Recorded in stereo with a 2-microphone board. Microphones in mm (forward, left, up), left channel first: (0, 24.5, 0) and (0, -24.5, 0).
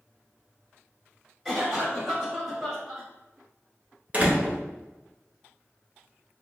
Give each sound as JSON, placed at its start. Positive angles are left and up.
{"t": 1.4, "sound": "a cough", "side_deg": 0, "distance_m": 1.8}
{"t": 4.1, "sound": "a door slam", "side_deg": -30, "distance_m": 0.7}